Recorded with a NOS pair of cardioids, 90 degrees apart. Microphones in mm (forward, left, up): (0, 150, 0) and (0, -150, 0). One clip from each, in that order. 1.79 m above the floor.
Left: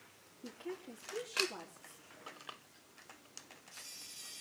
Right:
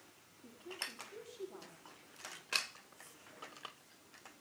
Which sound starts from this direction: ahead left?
A woman speaking, at 0.4 s.